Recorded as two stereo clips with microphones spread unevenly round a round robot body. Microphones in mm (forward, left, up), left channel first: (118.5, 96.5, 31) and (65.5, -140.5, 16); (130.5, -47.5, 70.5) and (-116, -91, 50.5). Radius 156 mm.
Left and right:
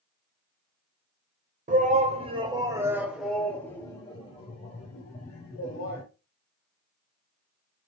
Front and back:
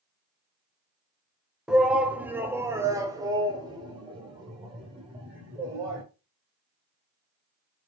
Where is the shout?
90° right, 1.6 m; by 6.0 s 125° left, 2.5 m.